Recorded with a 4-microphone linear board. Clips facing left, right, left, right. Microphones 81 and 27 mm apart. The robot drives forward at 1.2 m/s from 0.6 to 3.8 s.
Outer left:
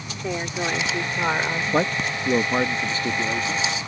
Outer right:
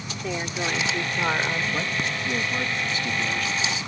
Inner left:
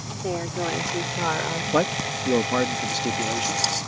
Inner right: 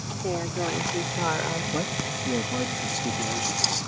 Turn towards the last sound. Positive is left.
turn(degrees=25)  # may be behind; listen again after turning